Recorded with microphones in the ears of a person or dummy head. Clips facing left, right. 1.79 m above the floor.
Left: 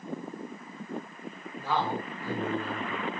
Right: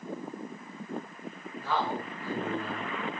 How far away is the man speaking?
About 3.5 m.